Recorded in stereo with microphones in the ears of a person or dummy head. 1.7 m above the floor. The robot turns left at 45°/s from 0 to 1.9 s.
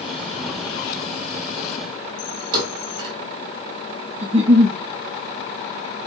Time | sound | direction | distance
2.5 | a thud | 60° right (ahead or behind) | 2.5 m
4.2 | a giggle | 35° right (ahead or behind) | 0.7 m